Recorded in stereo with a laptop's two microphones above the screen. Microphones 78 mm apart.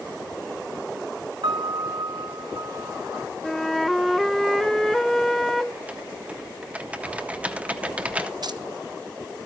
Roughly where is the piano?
Right.